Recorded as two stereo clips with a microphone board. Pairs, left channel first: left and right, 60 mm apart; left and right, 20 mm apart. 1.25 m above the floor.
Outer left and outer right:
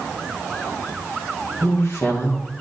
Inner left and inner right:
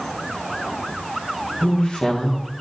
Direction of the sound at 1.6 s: 50° left (ahead or behind).